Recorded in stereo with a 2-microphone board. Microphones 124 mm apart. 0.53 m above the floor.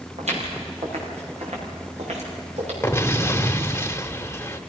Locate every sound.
0.2 s footsteps: 60° right (ahead or behind), 6 m
2.8 s an explosion: 20° left (ahead or behind), 0.9 m